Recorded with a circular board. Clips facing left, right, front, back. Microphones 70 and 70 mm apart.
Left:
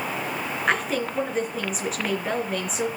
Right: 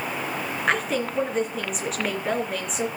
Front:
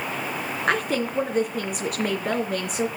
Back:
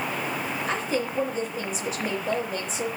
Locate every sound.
0.7 s a woman speaking: straight ahead, 3 m